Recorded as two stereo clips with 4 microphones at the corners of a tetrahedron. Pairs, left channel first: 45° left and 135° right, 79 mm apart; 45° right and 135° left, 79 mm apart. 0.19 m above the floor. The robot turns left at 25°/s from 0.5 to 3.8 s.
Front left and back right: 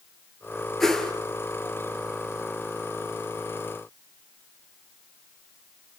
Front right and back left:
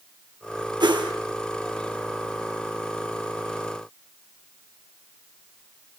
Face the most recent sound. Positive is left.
turn(degrees=55)